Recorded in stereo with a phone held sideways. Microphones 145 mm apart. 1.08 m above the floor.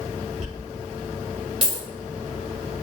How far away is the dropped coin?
About 1.6 m.